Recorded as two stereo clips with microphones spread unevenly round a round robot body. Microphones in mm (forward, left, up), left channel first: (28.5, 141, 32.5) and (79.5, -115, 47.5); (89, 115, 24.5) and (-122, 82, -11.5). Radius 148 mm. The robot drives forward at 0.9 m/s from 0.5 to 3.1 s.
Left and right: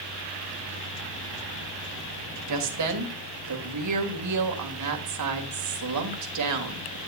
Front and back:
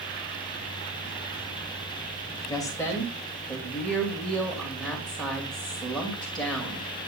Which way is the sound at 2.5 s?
70° right.